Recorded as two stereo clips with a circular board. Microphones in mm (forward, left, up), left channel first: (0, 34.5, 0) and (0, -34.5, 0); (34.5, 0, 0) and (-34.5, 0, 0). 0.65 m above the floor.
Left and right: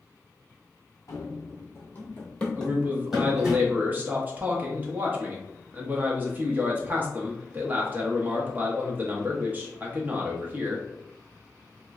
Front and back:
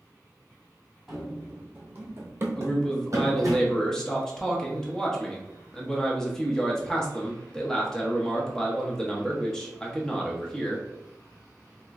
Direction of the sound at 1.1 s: 95° left.